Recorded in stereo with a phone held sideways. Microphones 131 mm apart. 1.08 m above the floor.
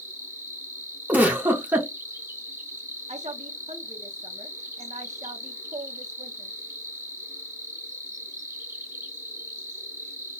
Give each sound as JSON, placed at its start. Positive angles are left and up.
{"t": 0.0, "sound": "an insect", "side_deg": -25, "distance_m": 1.0}
{"t": 1.1, "sound": "a giggle", "side_deg": -10, "distance_m": 0.7}
{"t": 3.1, "sound": "a woman speaking", "side_deg": -60, "distance_m": 0.7}